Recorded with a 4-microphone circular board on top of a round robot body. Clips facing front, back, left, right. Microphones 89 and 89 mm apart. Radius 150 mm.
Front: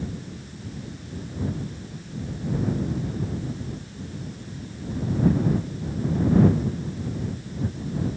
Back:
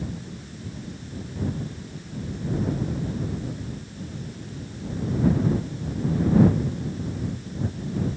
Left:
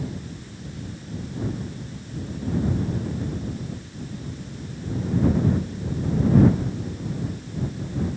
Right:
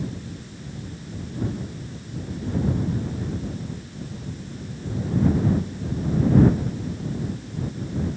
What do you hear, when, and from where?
Only background noise.